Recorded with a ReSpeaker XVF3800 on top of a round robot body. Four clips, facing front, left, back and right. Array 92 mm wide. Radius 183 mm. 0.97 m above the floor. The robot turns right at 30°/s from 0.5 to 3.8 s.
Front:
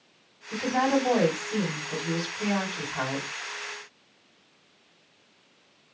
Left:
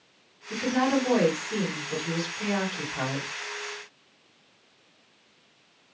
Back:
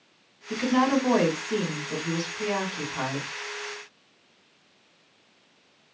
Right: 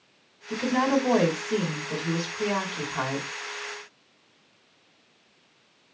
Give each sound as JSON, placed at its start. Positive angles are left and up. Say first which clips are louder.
{"t": 0.5, "sound": "a woman speaking", "louder": "right 1 dB, back 2 dB", "azimuth_deg": -165, "distance_m": 1.8}